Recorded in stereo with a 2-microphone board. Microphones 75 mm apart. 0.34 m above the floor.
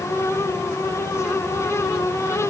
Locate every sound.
Only background noise.